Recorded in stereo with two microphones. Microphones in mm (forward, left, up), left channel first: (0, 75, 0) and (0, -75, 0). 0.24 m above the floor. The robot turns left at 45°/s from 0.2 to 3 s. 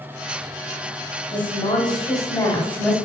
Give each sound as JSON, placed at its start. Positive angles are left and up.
{"t": 1.3, "sound": "a woman speaking", "azimuth_deg": 85, "distance_m": 1.8}